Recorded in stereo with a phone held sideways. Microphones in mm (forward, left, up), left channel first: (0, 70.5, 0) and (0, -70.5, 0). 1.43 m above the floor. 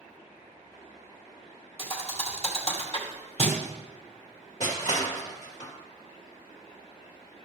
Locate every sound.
1.8 s a thud: 50° left (ahead or behind), 2 m
4.6 s crushing: 60° left (ahead or behind), 2 m